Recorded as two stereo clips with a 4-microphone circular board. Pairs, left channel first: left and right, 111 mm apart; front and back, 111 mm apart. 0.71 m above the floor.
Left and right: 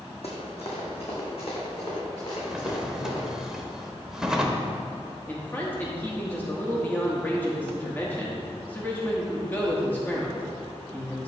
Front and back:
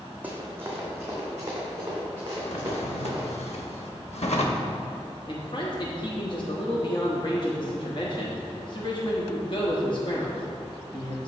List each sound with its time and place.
0.2 s running footsteps: 105° left, 1.9 m; by 3.2 s 125° left, 4 m
2.4 s a drawer: 5° right, 0.7 m
5.3 s a man speaking: 20° left, 1.0 m